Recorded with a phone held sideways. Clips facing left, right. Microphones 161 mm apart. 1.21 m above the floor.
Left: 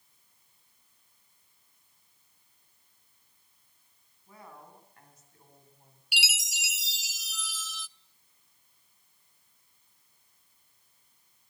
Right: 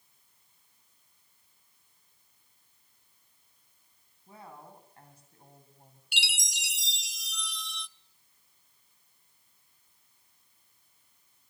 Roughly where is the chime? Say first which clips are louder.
Left 2 dB; centre.